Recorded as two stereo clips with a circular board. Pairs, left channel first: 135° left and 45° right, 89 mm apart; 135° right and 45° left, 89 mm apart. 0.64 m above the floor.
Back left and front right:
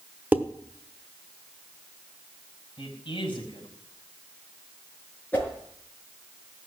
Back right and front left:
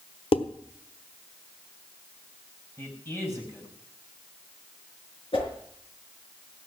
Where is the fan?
I don't hear a fan.